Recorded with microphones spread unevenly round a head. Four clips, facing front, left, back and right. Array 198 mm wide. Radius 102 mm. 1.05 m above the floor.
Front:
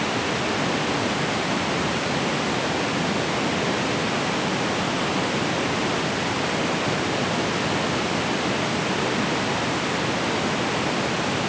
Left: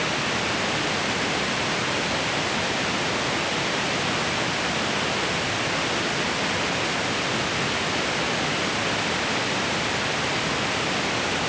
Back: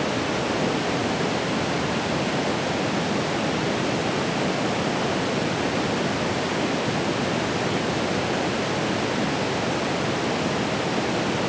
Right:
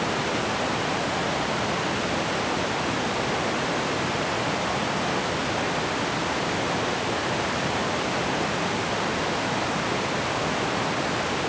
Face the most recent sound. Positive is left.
No sound to turn to.